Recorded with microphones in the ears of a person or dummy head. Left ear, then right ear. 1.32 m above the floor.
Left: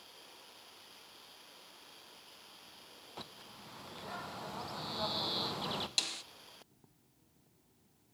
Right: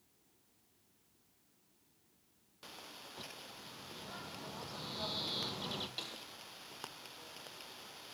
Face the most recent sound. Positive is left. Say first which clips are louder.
# left 9 dB
turn(degrees=75)  # may be behind; listen again after turning